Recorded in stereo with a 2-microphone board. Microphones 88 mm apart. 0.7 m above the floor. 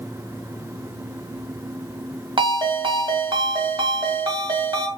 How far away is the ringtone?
About 1.3 m.